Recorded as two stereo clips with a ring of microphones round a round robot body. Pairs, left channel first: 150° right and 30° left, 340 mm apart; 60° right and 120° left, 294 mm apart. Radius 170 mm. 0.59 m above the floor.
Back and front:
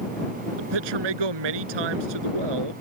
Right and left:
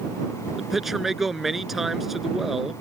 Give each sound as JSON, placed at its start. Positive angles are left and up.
{"t": 0.6, "sound": "a man speaking", "azimuth_deg": 30}